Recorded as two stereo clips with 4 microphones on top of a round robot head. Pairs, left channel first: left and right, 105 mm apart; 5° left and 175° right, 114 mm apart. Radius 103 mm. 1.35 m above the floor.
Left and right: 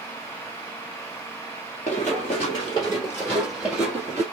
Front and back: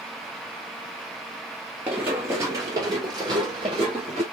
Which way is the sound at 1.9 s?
120° left.